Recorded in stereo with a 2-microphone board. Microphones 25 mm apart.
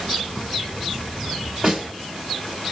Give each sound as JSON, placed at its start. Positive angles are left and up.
{"t": 1.6, "sound": "a snare drum", "side_deg": -30, "distance_m": 1.5}